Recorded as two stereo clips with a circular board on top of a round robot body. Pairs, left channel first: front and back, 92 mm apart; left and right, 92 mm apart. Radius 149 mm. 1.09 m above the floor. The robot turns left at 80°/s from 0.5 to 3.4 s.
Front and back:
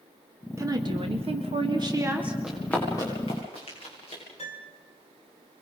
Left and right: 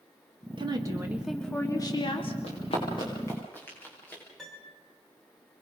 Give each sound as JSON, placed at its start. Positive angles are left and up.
{"t": 0.6, "sound": "a woman speaking", "azimuth_deg": -120, "distance_m": 2.0}
{"t": 2.4, "sound": "running footsteps", "azimuth_deg": 100, "distance_m": 8.0}
{"t": 4.4, "sound": "a piano", "azimuth_deg": 5, "distance_m": 3.0}